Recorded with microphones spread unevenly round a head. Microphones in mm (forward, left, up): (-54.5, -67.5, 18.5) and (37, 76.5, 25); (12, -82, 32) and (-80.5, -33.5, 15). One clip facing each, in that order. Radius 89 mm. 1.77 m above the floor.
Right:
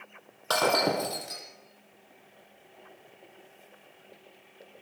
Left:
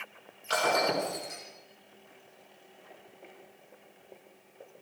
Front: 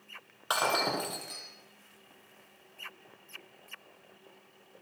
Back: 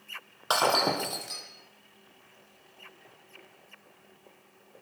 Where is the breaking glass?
145° right, 7.5 m.